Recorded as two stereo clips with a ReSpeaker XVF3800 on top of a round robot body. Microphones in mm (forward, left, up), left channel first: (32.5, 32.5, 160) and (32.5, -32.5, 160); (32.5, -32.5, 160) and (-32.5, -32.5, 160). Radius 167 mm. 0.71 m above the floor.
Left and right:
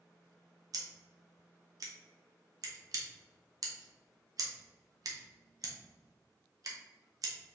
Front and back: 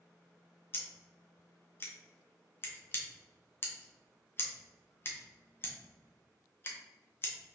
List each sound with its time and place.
0.7 s scissors: 55° right, 0.9 m